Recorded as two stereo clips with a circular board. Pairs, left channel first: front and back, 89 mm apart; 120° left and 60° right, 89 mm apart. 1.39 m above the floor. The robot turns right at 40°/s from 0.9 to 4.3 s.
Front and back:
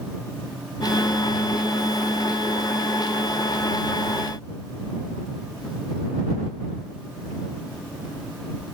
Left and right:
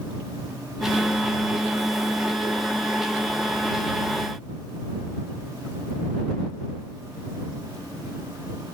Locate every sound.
Only background noise.